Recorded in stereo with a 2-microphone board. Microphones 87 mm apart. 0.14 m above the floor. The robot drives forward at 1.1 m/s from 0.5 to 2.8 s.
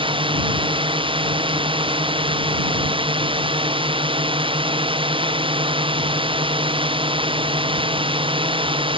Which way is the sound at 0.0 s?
80° right.